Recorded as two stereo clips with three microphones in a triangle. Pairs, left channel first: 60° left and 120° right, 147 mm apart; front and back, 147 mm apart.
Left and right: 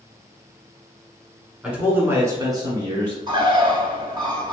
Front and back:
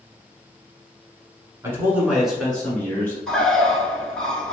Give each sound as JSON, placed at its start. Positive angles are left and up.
{"t": 1.6, "sound": "a man speaking", "azimuth_deg": 165, "distance_m": 1.1}
{"t": 3.3, "sound": "a bird", "azimuth_deg": -80, "distance_m": 0.5}